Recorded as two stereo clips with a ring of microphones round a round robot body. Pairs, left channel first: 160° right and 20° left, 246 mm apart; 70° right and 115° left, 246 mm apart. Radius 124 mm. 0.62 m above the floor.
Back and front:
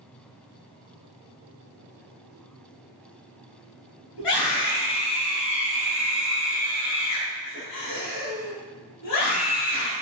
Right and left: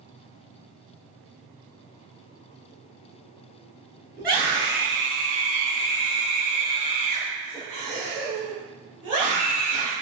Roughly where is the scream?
Behind.